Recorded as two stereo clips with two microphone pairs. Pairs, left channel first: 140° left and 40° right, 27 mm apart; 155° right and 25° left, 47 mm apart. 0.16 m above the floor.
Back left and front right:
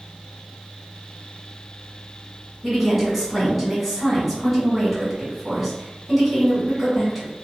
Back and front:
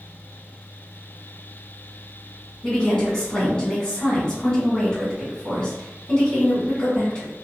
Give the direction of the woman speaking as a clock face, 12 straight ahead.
4 o'clock.